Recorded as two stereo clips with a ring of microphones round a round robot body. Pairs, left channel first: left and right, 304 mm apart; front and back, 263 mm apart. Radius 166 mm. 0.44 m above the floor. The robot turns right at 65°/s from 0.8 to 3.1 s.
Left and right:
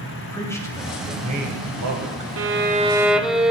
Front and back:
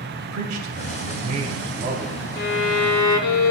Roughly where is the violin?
Ahead right.